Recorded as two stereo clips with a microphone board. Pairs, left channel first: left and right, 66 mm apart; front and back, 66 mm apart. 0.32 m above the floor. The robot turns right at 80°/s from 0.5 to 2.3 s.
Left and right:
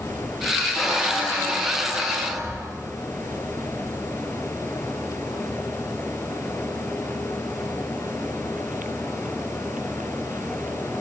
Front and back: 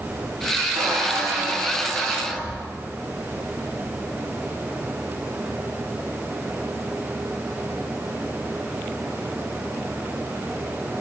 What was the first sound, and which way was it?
A squeak, straight behind.